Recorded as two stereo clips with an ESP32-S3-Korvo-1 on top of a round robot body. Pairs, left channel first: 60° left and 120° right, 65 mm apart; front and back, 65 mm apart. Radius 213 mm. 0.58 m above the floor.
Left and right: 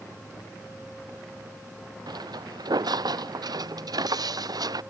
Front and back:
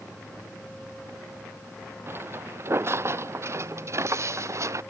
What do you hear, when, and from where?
2.1 s footsteps: 125° right; by 4.8 s 140° right